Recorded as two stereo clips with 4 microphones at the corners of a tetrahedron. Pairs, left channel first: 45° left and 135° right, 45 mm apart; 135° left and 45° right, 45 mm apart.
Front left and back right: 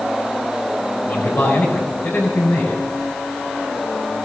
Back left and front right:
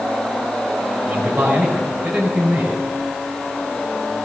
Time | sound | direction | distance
1.1 | a man speaking | 30° left | 6 m